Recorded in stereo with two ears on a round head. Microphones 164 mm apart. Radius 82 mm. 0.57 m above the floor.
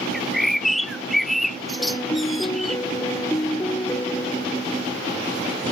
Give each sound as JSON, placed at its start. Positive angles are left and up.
{"t": 0.1, "sound": "a bird", "side_deg": 0}
{"t": 1.8, "sound": "a piano", "side_deg": 15}